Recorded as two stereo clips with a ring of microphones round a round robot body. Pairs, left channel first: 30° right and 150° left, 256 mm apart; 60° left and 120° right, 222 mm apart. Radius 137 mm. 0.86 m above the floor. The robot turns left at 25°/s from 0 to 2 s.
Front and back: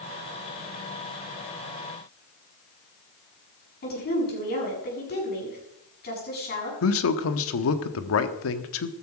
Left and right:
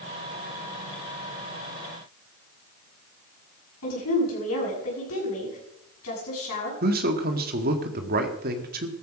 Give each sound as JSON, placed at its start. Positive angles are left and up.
{"t": 3.8, "sound": "a woman speaking", "azimuth_deg": 25, "distance_m": 7.5}
{"t": 6.8, "sound": "a man speaking", "azimuth_deg": -65, "distance_m": 1.4}